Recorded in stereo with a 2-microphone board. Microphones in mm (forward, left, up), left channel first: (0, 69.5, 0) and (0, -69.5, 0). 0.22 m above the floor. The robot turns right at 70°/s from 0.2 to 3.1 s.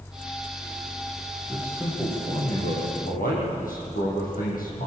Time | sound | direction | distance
1.5 | a man speaking | 30° right | 9.5 m